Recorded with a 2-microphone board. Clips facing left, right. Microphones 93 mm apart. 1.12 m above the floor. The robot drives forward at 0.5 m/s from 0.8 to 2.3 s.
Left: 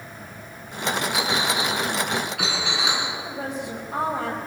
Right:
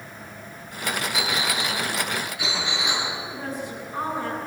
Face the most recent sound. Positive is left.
turn(degrees=75)  # may be behind; listen again after turning